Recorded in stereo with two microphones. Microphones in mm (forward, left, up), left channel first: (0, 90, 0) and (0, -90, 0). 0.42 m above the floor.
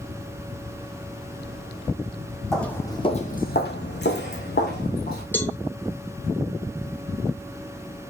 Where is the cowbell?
10° left (ahead or behind), 1.1 m.